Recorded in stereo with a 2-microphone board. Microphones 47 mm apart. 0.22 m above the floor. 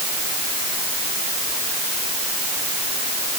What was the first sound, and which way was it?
Only background noise.